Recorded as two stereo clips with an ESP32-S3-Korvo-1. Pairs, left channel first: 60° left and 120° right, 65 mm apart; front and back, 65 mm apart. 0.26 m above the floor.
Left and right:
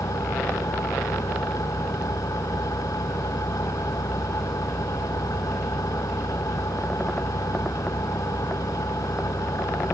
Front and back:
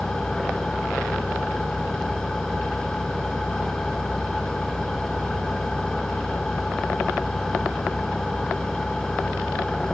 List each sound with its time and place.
0.0 s an engine running: 85° left